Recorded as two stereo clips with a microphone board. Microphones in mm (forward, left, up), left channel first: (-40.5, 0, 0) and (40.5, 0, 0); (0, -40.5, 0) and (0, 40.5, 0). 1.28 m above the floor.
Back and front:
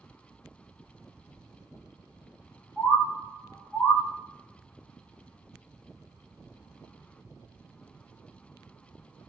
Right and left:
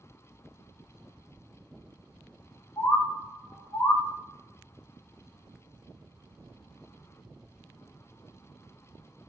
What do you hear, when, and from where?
2.8 s a bird: 120° right, 0.6 m